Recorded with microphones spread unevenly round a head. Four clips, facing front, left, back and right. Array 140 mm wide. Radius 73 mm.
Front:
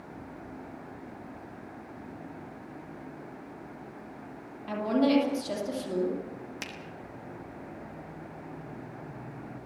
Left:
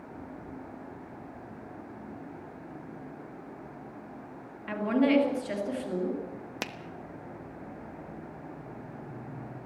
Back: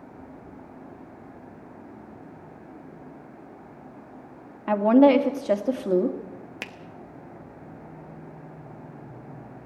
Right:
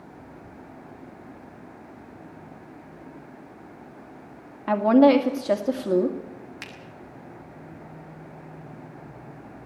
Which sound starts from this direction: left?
A finger snap, at 6.6 s.